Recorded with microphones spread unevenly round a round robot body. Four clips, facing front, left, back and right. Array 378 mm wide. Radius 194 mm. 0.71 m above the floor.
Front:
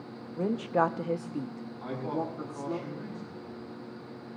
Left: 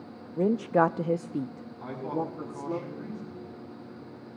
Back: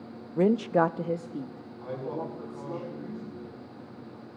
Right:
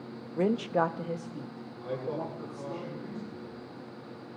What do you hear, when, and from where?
0.4 s a woman speaking: 175° left, 0.5 m; by 2.8 s 65° left, 1.3 m
1.8 s a man speaking: 45° left, 8.5 m